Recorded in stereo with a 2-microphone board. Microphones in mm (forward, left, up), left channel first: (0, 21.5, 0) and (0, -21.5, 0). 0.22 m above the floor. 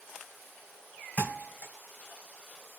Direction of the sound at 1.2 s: 20° left (ahead or behind).